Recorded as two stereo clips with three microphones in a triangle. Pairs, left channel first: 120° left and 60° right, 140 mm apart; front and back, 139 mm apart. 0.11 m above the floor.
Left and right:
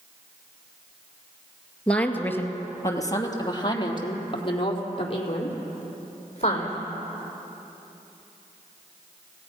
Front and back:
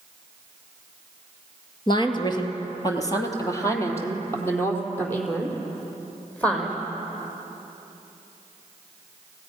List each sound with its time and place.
1.9 s a woman speaking: 40° left, 2 m; by 6.8 s 80° left, 5.5 m